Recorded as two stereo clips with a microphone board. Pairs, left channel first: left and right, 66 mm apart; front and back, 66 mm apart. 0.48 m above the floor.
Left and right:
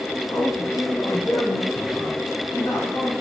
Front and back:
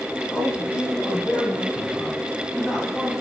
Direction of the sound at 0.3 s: 50° left.